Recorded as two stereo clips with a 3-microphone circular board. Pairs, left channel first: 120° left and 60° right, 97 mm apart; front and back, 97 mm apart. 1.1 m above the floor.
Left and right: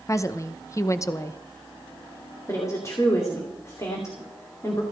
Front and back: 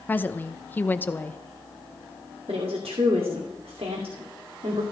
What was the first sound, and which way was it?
A woman speaking, 65° left.